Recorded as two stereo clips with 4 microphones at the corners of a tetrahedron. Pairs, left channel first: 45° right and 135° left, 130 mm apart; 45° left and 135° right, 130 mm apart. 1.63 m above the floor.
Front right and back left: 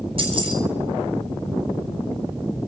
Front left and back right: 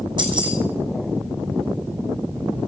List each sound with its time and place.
0.2 s keys jangling: 175° left, 6.5 m